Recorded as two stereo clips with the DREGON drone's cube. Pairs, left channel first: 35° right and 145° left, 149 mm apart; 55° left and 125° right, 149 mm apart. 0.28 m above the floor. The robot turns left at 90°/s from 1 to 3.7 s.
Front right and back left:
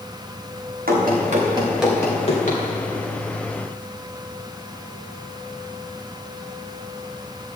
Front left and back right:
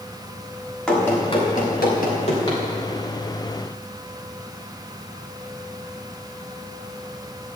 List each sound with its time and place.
0.9 s running footsteps: 140° left, 4.5 m; by 2.6 s 20° right, 5 m